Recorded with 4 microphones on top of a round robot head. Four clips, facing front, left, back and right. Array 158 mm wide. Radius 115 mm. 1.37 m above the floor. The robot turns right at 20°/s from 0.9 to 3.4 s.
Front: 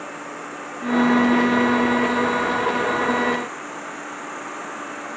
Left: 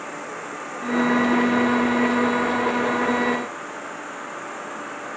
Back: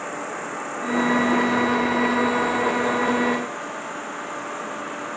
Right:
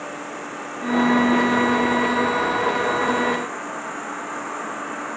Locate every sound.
0.0 s an insect: 160° right, 1.8 m; by 5.2 s 110° right, 1.8 m